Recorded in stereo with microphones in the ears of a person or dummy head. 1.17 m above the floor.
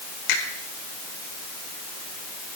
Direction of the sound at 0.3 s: 65° left (ahead or behind).